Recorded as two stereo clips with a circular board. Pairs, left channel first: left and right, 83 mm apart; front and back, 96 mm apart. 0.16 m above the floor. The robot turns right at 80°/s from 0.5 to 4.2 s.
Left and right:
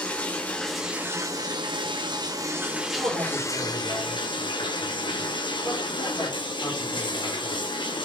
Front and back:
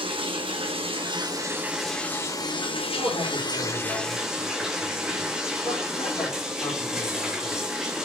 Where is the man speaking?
55° right, 7 m; by 7.7 s 40° left, 7 m.